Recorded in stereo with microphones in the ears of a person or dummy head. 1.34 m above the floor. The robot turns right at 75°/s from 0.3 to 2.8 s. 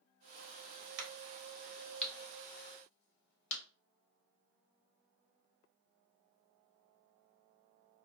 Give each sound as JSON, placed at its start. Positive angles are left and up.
{"t": 1.0, "sound": "a crack", "side_deg": -65, "distance_m": 1.5}